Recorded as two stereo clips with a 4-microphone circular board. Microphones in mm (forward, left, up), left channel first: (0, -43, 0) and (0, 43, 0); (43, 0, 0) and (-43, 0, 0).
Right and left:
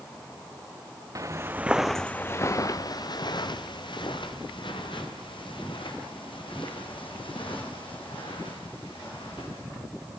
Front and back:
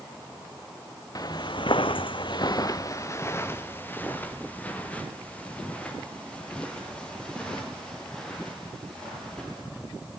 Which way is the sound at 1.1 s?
45° left.